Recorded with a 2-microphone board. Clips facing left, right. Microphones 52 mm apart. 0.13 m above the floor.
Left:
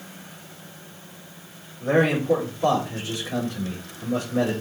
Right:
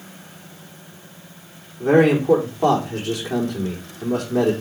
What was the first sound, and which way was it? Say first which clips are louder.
A man speaking: right 6 dB; 75° right (ahead or behind).